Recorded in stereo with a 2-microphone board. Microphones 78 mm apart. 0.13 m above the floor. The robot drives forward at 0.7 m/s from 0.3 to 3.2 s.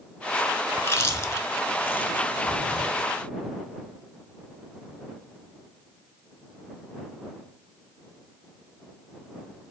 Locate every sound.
0.8 s chewing: 30° left (ahead or behind), 0.6 m; by 3.1 s 15° left (ahead or behind), 1.4 m